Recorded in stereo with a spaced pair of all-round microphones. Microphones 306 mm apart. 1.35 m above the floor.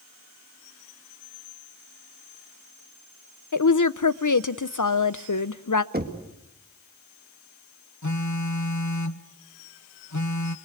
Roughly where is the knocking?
Right.